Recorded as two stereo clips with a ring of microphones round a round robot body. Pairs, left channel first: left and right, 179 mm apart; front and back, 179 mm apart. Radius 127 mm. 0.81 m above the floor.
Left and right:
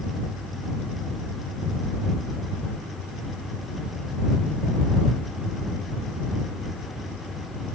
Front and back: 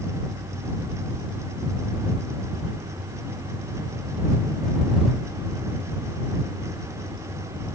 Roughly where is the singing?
I don't hear singing.